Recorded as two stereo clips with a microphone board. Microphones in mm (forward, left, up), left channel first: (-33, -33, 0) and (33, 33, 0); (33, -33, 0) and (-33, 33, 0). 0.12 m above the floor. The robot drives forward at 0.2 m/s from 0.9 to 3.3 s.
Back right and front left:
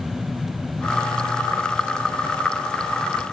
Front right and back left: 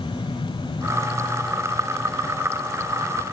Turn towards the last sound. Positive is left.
No sound to turn to.